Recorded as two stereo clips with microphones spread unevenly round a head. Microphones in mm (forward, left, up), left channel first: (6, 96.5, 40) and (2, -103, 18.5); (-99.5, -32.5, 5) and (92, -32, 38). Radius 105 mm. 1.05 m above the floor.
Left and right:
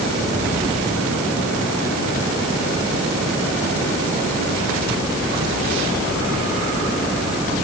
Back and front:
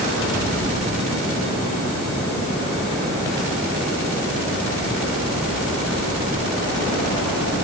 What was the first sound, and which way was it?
Only background noise.